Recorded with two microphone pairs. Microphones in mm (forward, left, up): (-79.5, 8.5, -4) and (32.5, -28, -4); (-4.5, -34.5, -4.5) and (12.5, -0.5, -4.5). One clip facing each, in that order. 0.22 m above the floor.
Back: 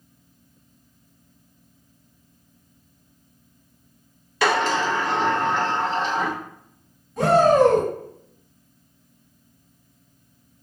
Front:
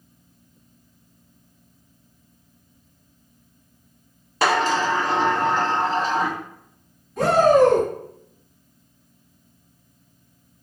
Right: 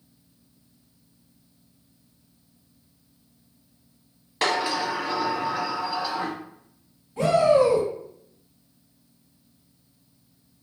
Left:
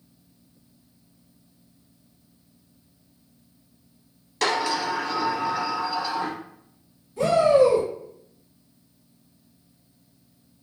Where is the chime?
I don't hear a chime.